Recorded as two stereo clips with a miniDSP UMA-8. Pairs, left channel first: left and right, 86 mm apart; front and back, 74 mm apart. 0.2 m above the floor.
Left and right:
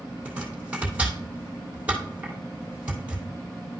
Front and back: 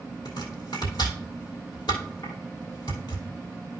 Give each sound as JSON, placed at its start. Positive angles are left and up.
{"t": 0.2, "sound": "chopping", "azimuth_deg": -15, "distance_m": 2.5}